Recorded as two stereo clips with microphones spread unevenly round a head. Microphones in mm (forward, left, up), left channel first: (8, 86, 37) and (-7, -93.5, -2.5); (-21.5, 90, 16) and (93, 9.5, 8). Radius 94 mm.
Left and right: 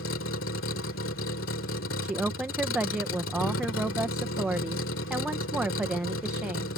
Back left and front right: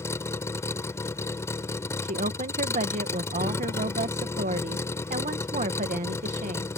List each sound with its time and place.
0.0 s a vehicle: 75° left
2.0 s a woman speaking: 10° right